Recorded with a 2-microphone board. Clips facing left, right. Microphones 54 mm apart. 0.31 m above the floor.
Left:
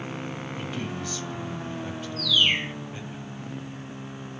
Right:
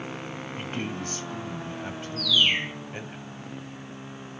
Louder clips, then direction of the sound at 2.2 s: Even; centre (ahead or behind).